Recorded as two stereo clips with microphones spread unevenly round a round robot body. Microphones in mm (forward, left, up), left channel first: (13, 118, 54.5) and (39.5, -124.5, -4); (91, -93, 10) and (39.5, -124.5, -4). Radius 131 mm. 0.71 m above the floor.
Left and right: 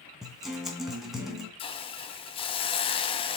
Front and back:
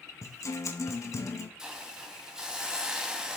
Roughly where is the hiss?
Behind.